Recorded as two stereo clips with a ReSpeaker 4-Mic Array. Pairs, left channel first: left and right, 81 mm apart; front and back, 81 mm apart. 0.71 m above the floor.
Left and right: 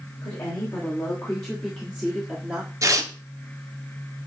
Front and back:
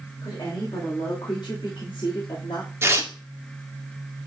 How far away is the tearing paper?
About 1.2 m.